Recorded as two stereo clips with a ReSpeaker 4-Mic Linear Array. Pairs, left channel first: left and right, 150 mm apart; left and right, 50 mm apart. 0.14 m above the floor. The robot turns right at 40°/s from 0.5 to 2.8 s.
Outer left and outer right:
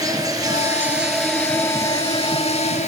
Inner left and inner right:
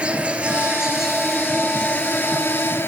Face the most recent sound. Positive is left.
turn(degrees=65)